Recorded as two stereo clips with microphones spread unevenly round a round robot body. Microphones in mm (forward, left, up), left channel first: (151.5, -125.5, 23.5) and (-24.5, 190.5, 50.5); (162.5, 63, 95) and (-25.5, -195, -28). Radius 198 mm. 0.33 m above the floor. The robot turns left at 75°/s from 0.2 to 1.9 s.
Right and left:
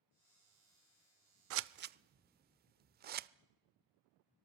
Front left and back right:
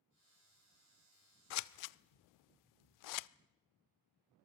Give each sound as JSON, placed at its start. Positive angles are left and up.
{"t": 1.5, "sound": "scissors", "azimuth_deg": 95, "distance_m": 0.5}